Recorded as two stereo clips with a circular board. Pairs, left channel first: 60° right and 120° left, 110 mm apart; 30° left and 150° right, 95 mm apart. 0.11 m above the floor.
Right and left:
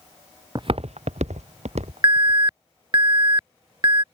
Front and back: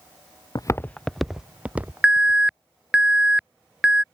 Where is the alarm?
135° left.